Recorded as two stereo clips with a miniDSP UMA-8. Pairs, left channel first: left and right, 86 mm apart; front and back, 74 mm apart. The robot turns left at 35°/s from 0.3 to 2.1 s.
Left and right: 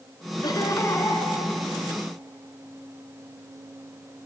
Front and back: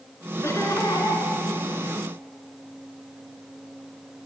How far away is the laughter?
About 4 m.